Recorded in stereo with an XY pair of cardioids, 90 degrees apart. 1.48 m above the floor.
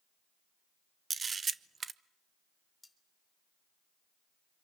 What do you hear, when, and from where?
1.1 s a camera shutter: 45° right, 0.9 m
2.8 s cutlery clinking: 20° left, 4.5 m